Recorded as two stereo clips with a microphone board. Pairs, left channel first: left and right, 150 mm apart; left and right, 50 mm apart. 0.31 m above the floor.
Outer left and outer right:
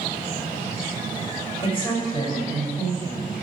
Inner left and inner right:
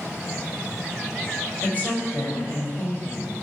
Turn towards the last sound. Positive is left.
turn(degrees=30)  # may be behind; listen again after turning